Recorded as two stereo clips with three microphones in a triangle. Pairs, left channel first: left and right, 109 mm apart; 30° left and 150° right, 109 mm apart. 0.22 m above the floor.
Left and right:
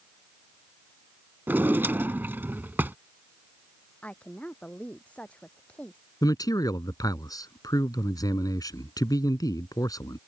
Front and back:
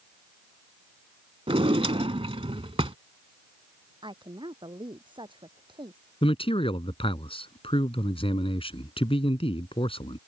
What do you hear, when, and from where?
1.5 s a drawer: 160° right
4.0 s a woman speaking: 170° left
6.2 s a man speaking: 40° left